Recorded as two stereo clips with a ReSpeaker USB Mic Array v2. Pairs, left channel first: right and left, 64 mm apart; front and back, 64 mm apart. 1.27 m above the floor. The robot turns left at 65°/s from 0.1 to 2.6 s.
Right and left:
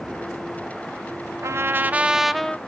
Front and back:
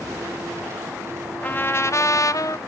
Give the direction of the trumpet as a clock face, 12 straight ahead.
10 o'clock.